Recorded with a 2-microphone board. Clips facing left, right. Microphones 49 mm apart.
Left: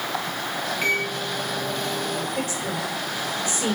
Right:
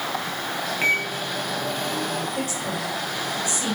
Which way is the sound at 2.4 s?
35° left (ahead or behind).